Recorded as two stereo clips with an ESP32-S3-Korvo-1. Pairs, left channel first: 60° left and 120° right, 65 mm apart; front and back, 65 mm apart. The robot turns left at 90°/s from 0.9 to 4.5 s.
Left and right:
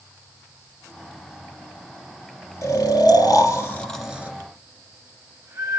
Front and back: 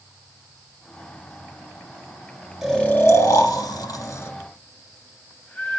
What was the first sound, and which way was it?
Snoring, 95° left.